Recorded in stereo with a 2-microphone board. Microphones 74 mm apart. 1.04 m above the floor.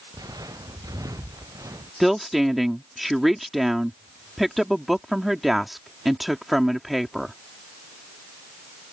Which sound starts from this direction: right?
Footsteps, at 0.1 s.